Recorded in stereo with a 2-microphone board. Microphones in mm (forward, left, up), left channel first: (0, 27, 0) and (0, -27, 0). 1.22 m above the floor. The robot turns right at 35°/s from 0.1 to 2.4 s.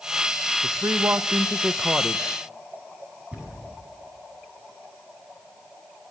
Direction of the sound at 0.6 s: 65° right.